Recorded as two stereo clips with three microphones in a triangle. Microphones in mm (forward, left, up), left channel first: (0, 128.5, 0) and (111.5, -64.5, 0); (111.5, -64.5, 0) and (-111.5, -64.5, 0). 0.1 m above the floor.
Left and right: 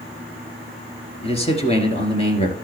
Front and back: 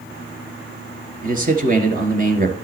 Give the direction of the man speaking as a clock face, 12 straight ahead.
6 o'clock.